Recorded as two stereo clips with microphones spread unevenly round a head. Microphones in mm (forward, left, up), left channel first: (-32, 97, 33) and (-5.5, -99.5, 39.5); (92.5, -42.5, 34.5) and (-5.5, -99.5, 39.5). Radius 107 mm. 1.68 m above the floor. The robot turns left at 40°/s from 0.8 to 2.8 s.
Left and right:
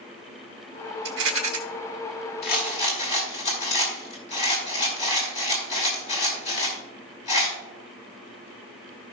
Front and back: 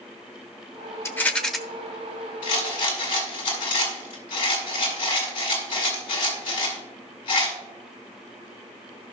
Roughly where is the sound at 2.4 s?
Ahead left.